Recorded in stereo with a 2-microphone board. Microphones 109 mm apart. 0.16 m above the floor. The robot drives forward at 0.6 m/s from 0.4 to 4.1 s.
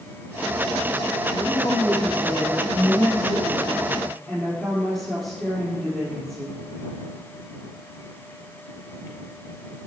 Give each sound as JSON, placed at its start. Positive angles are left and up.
{"t": 1.3, "sound": "a woman speaking", "side_deg": 0, "distance_m": 2.5}